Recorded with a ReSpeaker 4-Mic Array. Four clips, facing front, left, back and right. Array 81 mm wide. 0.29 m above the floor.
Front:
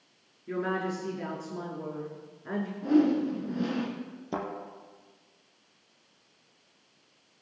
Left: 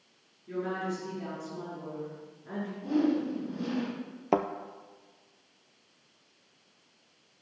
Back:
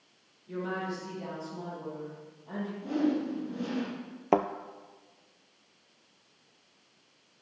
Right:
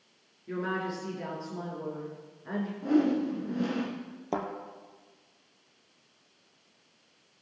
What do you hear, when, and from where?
0.5 s a woman speaking: 25° right, 4.5 m
2.8 s a whoosh: 60° right, 3.5 m
4.3 s a thud: 155° left, 0.8 m